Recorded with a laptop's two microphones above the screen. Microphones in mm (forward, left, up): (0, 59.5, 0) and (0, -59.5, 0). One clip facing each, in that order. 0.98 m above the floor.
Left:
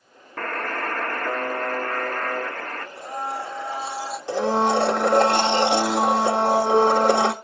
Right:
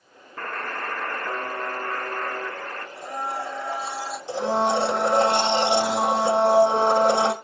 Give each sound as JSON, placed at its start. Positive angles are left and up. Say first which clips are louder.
{"t": 0.4, "sound": "a buzzer", "louder": "left 3 dB", "side_deg": 80, "distance_m": 1.0}
{"t": 3.0, "sound": "a blender", "louder": "even", "side_deg": 15, "distance_m": 3.0}
{"t": 4.3, "sound": "a blender", "louder": "left 2 dB", "side_deg": 75, "distance_m": 1.2}